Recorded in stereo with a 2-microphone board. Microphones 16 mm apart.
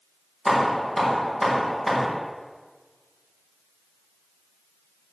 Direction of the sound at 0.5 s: 15° left (ahead or behind).